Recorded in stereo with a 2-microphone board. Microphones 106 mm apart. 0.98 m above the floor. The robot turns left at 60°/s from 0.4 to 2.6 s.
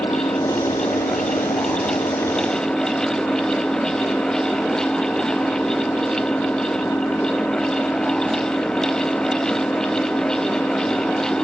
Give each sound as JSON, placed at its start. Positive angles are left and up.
{"t": 0.0, "sound": "an engine running", "azimuth_deg": 145}